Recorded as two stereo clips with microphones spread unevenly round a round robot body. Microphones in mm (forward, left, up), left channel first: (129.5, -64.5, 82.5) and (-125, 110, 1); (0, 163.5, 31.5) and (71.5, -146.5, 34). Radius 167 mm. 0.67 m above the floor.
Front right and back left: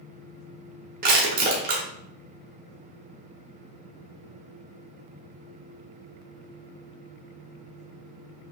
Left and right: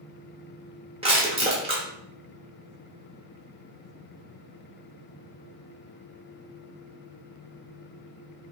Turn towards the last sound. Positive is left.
turn(degrees=-150)